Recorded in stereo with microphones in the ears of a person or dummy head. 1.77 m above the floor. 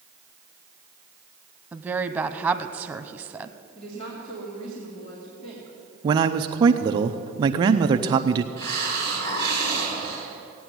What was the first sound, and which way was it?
A woman speaking, 10° right (ahead or behind).